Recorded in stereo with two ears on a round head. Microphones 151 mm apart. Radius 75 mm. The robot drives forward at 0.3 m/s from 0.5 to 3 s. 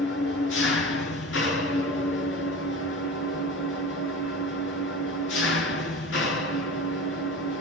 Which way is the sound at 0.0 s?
75° left (ahead or behind).